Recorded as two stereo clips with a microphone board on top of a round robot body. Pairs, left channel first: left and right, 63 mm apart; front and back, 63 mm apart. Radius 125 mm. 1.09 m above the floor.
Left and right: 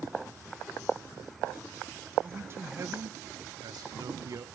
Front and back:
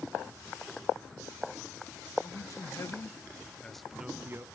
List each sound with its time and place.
2.2 s a man speaking: 35° right, 1.6 m; by 4.5 s 130° right, 0.9 m